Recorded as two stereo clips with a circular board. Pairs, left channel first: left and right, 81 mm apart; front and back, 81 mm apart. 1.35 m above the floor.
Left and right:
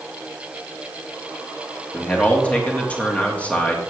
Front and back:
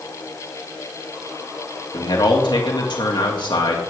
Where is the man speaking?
20° left, 2.5 m.